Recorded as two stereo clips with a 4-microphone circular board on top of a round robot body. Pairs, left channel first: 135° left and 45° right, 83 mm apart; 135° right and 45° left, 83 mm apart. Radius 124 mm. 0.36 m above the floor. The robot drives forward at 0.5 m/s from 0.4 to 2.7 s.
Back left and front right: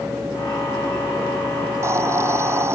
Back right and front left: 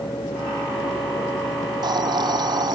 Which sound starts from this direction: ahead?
A hiss, at 1.7 s.